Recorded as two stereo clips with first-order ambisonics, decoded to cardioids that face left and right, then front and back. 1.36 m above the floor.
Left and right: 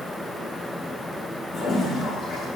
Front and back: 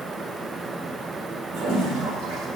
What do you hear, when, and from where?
1.5 s a toilet flushing: 155° left, 3 m